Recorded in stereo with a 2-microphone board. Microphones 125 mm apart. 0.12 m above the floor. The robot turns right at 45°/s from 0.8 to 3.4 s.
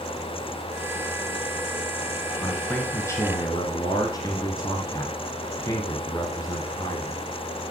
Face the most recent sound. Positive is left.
turn(degrees=50)